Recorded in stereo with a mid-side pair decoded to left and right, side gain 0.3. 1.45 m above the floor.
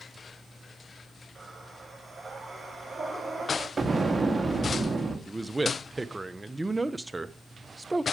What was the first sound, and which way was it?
Breathing, 50° right.